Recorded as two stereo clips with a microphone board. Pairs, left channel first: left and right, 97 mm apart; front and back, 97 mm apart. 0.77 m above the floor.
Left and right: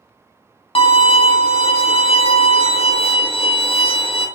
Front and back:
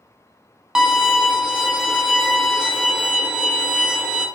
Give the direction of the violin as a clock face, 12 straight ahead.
9 o'clock.